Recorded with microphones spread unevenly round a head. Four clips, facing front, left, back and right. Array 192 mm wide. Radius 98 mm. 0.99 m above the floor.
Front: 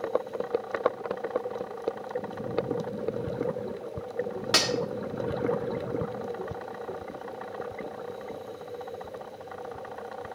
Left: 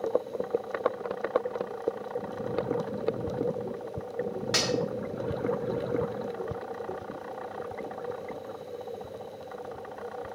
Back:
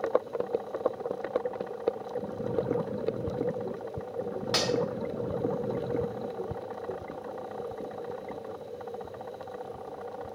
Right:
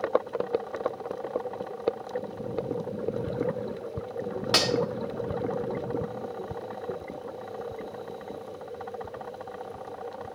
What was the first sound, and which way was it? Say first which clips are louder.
Cutlery clinking: right 4 dB, front 1 dB; 40° right.